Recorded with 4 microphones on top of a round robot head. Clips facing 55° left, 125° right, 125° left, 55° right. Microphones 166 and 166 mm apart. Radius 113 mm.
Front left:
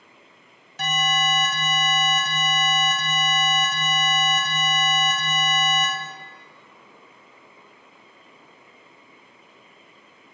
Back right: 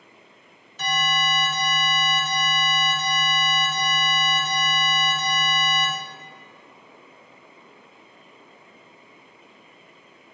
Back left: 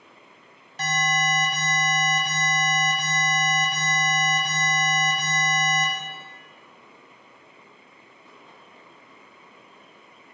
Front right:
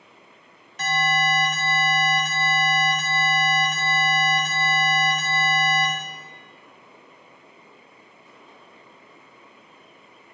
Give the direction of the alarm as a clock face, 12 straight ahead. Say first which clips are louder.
Front left 1 dB, front right 2 dB; 10 o'clock.